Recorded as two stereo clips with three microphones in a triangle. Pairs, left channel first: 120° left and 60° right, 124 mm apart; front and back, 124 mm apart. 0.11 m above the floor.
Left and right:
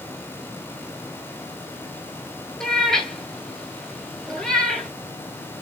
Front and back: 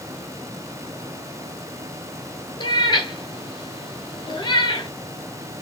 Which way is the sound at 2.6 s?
35° left.